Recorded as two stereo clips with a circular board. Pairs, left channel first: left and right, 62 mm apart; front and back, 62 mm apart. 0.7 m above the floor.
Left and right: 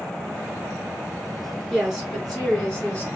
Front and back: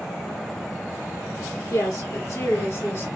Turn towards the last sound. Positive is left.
turn(degrees=30)